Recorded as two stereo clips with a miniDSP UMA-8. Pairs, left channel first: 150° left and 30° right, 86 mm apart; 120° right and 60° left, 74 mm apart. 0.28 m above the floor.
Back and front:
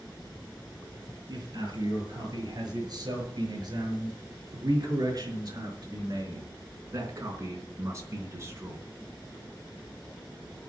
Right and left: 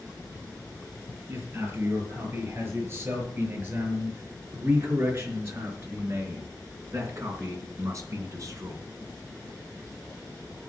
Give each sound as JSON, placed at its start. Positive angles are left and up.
{"t": 1.3, "sound": "a man speaking", "azimuth_deg": 5, "distance_m": 6.5}